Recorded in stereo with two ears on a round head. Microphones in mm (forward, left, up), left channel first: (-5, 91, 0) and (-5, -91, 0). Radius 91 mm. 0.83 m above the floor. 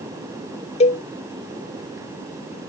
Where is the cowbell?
35° left (ahead or behind).